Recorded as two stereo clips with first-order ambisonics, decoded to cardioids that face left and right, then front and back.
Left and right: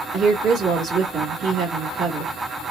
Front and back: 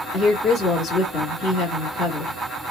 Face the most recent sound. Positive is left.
turn(degrees=-35)